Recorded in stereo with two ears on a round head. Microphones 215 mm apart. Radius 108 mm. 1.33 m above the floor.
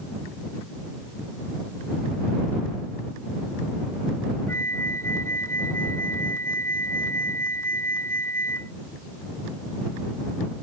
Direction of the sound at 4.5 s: 10° left (ahead or behind).